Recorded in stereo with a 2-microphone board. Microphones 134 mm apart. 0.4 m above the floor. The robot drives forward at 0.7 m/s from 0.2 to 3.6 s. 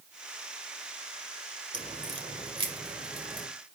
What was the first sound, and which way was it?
A crack, 45° right (ahead or behind).